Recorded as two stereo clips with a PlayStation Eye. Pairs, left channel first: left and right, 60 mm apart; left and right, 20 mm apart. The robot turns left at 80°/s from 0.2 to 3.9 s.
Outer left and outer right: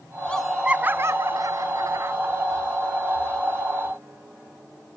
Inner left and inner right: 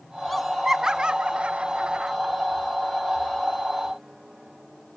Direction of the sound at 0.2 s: 15° left (ahead or behind).